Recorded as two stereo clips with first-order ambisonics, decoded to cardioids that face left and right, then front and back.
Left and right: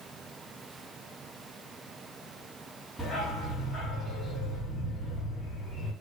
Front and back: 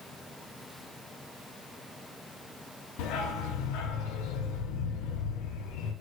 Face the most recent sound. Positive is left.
turn(degrees=5)